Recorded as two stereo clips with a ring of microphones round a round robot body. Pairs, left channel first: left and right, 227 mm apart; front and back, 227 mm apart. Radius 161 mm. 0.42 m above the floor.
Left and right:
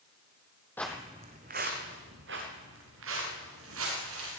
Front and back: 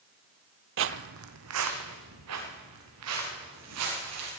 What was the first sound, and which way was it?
Footsteps, 170° left.